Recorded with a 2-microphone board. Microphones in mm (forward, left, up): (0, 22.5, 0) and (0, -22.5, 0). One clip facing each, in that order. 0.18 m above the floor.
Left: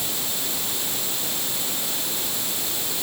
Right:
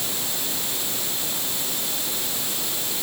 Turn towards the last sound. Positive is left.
No sound to turn to.